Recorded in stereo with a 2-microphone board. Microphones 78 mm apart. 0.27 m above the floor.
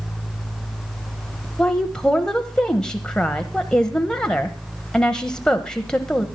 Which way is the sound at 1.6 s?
10° left (ahead or behind).